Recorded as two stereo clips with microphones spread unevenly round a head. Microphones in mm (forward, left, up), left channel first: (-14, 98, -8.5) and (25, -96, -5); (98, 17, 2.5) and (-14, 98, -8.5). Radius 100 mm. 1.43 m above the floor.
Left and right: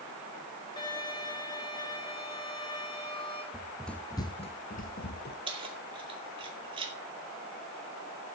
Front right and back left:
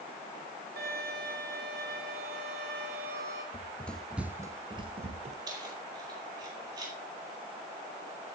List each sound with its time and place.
0.8 s a violin: 170° left, 5.5 m
3.5 s running footsteps: 5° right, 1.6 m; by 5.4 s 120° left, 2 m
5.5 s keys jangling: 145° right, 2 m